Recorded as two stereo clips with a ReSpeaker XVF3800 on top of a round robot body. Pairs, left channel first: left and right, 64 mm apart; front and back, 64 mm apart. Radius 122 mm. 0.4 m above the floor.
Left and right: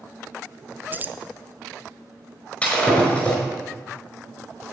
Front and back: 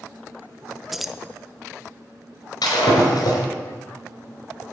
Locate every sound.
0.9 s keys jangling: 95° right, 0.9 m
2.6 s breaking glass: 15° left, 5 m